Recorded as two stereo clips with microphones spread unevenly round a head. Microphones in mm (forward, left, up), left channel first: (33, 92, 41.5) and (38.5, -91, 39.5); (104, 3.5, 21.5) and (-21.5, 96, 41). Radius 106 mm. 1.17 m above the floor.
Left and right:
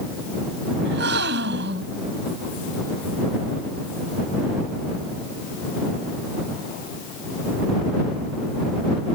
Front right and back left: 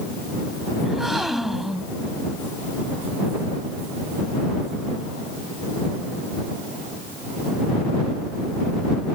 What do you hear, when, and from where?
0.8 s a gasp: 130° right